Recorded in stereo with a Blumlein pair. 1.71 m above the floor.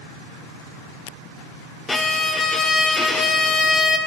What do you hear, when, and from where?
1.9 s a violin: 10° left, 0.6 m